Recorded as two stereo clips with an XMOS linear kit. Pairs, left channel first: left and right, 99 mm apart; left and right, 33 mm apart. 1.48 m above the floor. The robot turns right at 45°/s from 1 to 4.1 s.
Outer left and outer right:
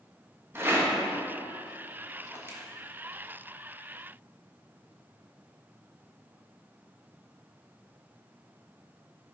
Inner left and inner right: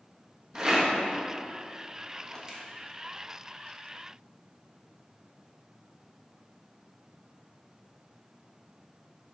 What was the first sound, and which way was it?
A rattle, 25° right (ahead or behind).